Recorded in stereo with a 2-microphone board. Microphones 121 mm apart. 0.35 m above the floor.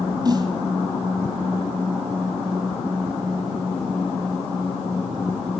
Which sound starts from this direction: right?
A snare drum, at 0.2 s.